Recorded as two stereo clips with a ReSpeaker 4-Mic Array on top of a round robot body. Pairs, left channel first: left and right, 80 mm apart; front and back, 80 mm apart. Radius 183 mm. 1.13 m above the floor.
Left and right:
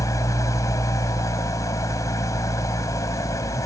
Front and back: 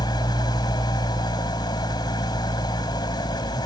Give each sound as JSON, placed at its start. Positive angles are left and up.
{"t": 0.0, "sound": "an engine running", "azimuth_deg": 35}